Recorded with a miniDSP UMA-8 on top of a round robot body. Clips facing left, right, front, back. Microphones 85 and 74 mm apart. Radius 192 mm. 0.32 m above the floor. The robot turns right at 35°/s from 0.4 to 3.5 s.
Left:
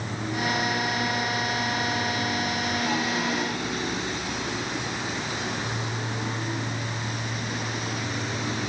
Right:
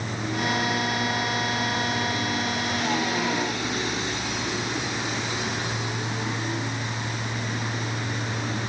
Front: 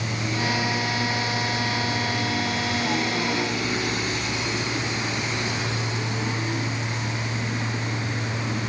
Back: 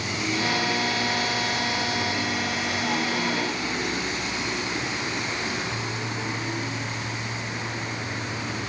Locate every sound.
Only background noise.